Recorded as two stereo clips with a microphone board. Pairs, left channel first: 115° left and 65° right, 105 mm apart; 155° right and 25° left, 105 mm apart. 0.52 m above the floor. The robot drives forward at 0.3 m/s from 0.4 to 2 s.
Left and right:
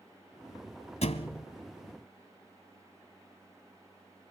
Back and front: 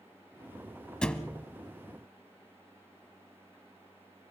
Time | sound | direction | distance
1.0 | a thud | 120° left | 1.2 m